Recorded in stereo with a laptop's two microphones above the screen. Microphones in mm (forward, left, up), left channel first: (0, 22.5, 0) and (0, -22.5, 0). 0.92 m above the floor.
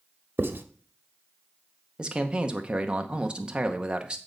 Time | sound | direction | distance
0.4 | writing | 55° right (ahead or behind) | 0.9 m
2.0 | a man speaking | 25° right (ahead or behind) | 0.7 m